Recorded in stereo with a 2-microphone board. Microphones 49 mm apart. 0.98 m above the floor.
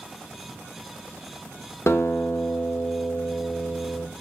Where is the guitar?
60° left (ahead or behind), 1.4 m.